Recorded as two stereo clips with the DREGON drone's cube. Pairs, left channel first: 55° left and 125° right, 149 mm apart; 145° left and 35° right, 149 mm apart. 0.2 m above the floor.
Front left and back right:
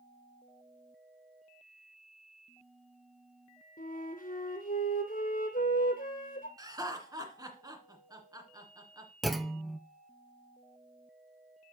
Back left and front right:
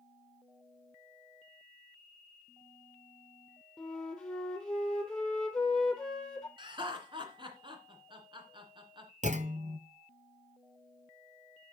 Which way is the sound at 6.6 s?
70° right.